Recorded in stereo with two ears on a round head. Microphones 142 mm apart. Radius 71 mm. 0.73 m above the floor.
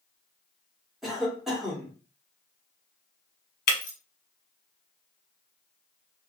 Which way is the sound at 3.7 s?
65° left (ahead or behind).